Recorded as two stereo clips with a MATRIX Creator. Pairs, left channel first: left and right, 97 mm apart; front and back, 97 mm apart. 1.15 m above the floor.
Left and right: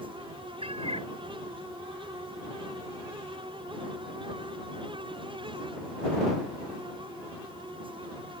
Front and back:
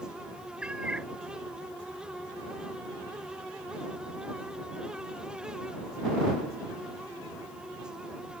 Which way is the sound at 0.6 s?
100° right.